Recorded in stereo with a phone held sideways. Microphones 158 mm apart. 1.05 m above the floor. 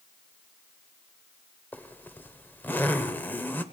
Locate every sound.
1.7 s a zipper: 10° left (ahead or behind), 1.1 m